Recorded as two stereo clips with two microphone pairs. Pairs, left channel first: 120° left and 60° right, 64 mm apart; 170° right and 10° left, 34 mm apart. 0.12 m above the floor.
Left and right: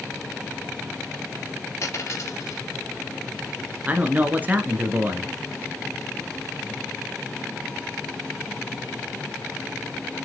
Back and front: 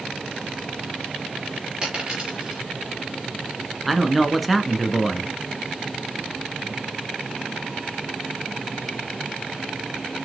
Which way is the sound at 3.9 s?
75° right.